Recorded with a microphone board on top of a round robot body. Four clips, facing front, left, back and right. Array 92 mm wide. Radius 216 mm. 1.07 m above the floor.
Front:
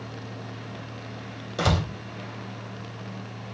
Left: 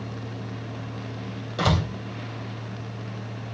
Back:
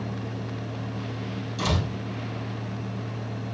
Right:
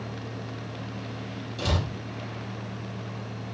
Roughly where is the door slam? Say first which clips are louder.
Left 6 dB, front 3 dB; ahead left.